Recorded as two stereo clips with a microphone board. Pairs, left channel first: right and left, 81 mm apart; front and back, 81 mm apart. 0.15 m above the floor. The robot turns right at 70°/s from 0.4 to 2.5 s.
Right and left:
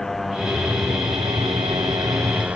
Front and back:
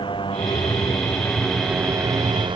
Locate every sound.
0.0 s a motorcycle: 5° right; by 2.6 s 165° left